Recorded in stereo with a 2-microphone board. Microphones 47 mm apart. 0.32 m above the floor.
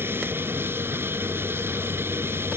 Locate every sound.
0.0 s an aircraft: 45° right (ahead or behind); by 2.6 s 50° right (ahead or behind)